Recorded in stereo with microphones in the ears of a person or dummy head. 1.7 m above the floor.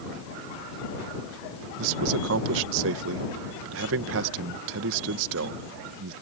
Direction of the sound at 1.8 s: 75° right (ahead or behind).